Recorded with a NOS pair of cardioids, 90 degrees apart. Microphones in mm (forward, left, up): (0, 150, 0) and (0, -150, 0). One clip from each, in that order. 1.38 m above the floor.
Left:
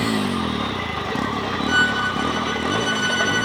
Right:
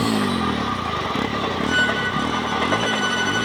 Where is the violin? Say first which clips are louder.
Left 2 dB; 15° left.